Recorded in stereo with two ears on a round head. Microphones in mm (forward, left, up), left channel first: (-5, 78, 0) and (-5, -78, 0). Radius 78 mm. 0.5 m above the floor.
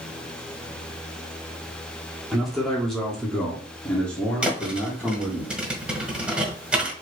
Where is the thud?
5° right (ahead or behind), 0.7 m.